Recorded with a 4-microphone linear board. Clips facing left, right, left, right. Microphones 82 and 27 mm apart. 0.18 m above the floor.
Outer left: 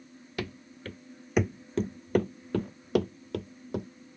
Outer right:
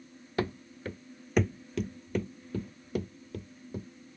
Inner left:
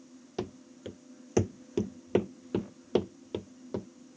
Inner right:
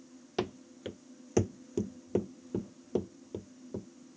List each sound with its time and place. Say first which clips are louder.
0.4 s running footsteps: outer right 5 dB, inner right 3 dB; 30° right (ahead or behind); by 3.9 s 85° left